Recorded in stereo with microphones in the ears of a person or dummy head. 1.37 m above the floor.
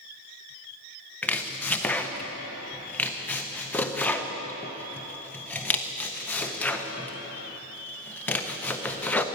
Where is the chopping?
5° left (ahead or behind), 0.6 m.